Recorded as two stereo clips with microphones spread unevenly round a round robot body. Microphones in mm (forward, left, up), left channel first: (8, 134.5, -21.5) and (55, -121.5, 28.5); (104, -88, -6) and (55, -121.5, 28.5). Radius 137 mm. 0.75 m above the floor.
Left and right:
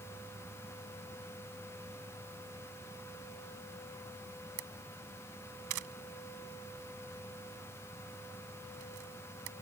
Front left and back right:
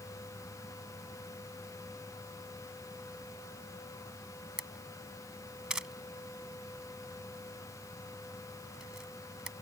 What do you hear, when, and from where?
4.6 s a camera shutter: 70° right